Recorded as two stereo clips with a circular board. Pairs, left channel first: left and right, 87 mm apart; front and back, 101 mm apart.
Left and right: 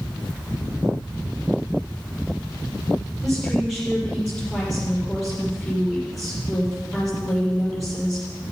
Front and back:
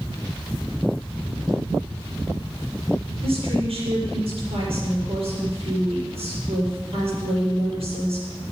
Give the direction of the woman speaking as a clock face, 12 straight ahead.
6 o'clock.